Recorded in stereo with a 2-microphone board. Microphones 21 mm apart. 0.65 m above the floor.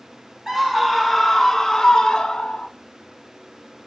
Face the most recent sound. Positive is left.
turn(degrees=35)  # may be behind; listen again after turning